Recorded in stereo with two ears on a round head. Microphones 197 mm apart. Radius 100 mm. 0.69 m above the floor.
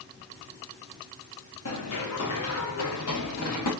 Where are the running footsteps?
75° left (ahead or behind), 3.5 m; by 3.7 s 80° left, 5 m.